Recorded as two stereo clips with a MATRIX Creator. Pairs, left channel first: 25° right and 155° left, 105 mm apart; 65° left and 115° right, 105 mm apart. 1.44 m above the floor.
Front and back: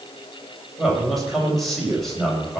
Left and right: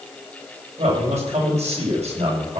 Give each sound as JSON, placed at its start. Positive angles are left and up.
{"t": 0.8, "sound": "a man speaking", "azimuth_deg": -110, "distance_m": 8.0}